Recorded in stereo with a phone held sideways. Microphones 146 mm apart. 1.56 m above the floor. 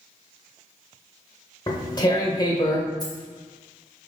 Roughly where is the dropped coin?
Left.